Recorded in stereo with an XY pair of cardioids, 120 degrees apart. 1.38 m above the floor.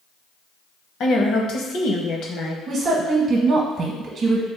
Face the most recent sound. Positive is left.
turn(degrees=-45)